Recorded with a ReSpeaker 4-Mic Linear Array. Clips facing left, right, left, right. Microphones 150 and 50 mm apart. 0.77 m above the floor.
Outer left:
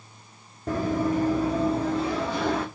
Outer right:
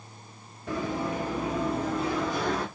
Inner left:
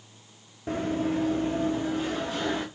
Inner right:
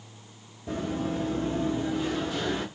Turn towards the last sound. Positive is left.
turn(degrees=25)  # may be behind; listen again after turning